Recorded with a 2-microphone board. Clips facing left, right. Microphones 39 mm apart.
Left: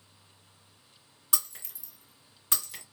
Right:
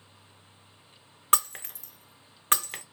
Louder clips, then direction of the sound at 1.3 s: Right 11 dB; 55° right (ahead or behind).